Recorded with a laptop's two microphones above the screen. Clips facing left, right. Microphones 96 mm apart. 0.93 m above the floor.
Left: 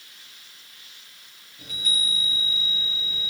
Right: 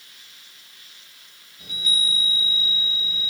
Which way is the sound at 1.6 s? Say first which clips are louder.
Right 2 dB; 40° left (ahead or behind).